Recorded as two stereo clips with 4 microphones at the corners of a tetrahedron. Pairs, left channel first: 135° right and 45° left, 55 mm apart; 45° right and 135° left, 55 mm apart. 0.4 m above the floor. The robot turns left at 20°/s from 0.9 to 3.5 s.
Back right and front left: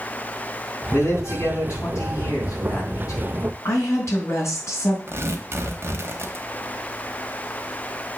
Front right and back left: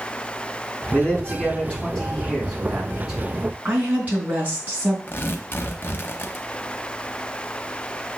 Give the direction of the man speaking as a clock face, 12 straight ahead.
4 o'clock.